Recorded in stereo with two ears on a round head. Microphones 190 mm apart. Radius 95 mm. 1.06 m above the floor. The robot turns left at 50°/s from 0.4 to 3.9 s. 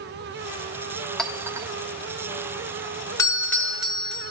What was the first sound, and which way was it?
A clink, 5° left (ahead or behind).